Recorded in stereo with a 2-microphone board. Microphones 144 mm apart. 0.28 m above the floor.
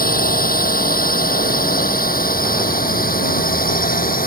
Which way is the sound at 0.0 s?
80° left.